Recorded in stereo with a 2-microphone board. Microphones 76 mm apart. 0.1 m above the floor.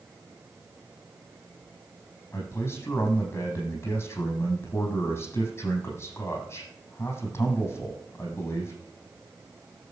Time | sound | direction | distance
2.3 | a man speaking | 40° left (ahead or behind) | 5 m